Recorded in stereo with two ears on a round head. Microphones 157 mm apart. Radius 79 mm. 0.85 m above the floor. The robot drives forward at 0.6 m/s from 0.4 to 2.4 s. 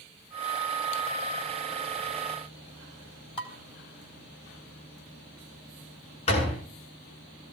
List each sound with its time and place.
3.4 s dishes clattering: 35° left (ahead or behind), 3.5 m
6.3 s a door slam: 40° left (ahead or behind), 8 m